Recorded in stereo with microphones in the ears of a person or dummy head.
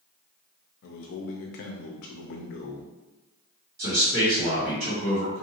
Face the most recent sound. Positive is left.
turn(degrees=-45)  # may be behind; listen again after turning